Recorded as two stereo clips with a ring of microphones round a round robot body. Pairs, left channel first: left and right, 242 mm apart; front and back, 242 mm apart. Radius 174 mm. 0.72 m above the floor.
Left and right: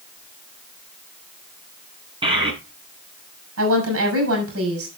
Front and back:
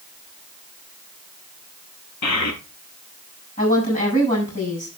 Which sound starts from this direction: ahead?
A child speaking, at 2.2 s.